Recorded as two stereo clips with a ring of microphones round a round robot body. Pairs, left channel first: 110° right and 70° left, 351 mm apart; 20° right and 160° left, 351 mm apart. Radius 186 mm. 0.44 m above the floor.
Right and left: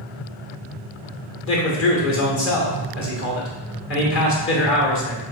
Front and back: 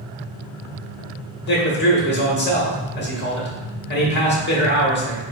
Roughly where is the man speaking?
Right.